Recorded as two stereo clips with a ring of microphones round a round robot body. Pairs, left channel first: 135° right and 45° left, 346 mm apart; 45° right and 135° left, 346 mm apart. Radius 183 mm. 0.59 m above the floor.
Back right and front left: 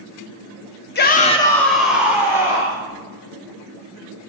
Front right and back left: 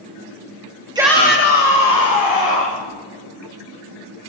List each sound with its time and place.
0.9 s a shout: 160° right, 0.7 m; by 2.8 s 35° right, 2.5 m